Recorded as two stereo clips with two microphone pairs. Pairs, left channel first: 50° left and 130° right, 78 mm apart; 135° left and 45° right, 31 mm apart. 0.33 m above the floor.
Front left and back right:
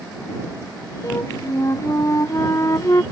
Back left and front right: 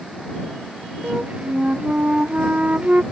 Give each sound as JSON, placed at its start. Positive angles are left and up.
{"t": 1.0, "sound": "a flute", "azimuth_deg": 0}